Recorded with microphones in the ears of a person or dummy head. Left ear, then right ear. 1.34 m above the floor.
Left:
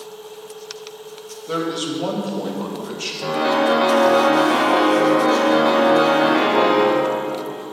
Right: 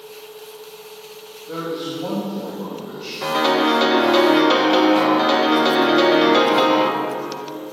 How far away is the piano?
About 1.0 m.